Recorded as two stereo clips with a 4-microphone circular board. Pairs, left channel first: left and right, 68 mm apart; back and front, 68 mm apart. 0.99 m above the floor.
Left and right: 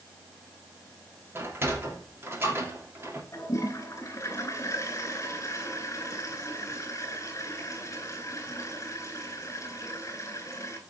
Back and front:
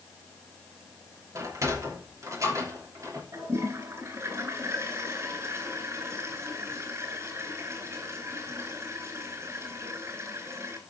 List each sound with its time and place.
1.4 s a sliding door: 40° right, 3 m
3.3 s a toilet flushing: 45° left, 3.5 m